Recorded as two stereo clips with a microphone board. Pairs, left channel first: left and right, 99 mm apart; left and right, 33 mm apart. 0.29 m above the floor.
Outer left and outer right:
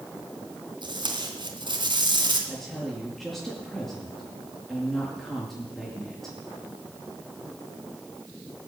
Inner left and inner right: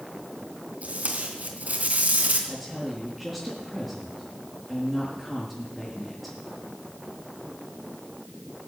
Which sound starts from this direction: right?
Tape being pulled, at 0.8 s.